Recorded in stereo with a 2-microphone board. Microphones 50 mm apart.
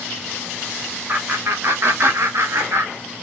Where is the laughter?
45° right (ahead or behind), 1.5 m; by 2.9 s 65° right (ahead or behind), 1.0 m.